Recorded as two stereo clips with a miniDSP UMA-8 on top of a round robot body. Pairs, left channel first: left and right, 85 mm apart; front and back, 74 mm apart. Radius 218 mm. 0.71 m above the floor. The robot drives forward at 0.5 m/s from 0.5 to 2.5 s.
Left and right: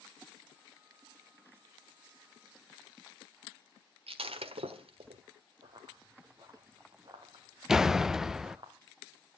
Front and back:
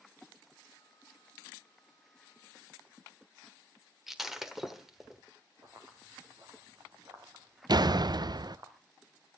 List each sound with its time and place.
4.1 s breaking glass: 95° right, 1.3 m
5.6 s running footsteps: 125° right, 0.8 m; by 8.7 s 130° right, 3 m
7.7 s a door slam: 175° right, 0.6 m